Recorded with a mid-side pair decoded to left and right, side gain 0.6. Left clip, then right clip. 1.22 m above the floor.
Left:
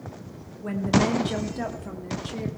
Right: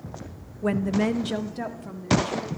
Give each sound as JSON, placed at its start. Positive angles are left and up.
{"t": 0.6, "sound": "a woman speaking", "azimuth_deg": -50, "distance_m": 0.8}